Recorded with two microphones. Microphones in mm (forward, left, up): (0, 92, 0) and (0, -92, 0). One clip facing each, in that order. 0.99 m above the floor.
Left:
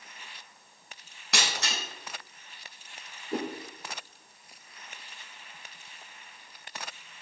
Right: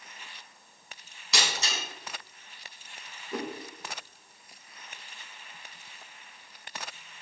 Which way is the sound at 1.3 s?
60° left (ahead or behind).